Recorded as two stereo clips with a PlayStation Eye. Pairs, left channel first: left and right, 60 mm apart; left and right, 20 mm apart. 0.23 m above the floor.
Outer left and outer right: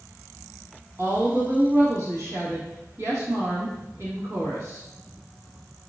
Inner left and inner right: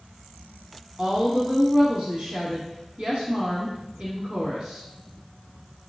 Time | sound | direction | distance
1.0 | a woman speaking | 55° right (ahead or behind) | 1.7 m